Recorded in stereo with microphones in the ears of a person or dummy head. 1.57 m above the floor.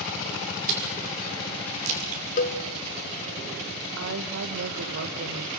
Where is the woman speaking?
75° right (ahead or behind), 1.3 m.